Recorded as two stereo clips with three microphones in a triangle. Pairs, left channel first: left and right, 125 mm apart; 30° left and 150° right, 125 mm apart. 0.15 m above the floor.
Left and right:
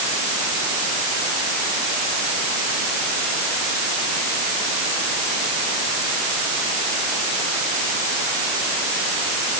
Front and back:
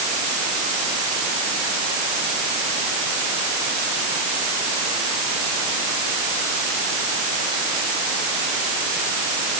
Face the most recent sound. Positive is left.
No sound to turn to.